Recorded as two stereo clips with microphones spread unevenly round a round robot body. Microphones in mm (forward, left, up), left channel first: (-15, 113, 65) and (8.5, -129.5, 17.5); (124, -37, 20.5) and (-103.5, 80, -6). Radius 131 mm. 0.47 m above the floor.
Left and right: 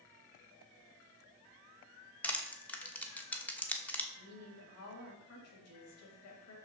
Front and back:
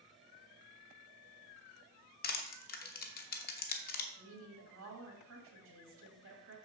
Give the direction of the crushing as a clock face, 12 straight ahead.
12 o'clock.